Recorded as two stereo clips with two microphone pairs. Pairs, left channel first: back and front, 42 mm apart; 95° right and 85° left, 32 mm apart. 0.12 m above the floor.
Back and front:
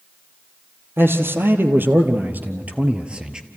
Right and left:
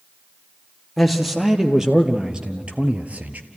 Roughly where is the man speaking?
Ahead.